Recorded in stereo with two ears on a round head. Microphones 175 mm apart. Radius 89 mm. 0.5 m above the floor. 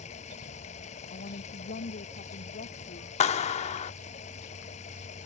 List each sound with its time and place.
0.0 s running water: 35° left (ahead or behind)
1.1 s a woman speaking: 45° left (ahead or behind)
3.2 s a clap: 35° left (ahead or behind)